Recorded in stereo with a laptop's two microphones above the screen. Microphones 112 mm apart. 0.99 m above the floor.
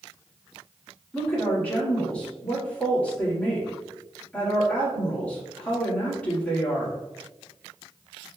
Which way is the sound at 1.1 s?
10° left (ahead or behind).